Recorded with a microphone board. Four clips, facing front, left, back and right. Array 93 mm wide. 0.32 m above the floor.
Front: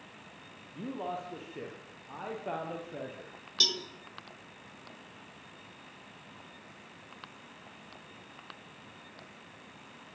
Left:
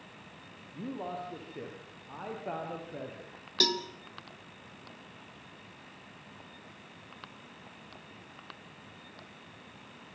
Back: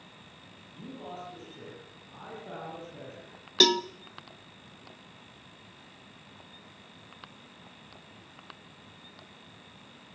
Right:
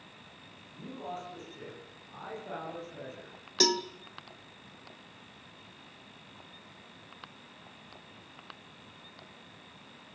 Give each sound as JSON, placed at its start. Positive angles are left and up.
{"t": 0.7, "sound": "a man speaking", "azimuth_deg": 40, "distance_m": 9.5}
{"t": 3.6, "sound": "a cowbell", "azimuth_deg": -165, "distance_m": 1.1}